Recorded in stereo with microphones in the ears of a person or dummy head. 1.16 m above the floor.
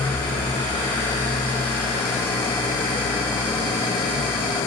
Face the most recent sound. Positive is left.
turn(degrees=10)  # may be behind; listen again after turning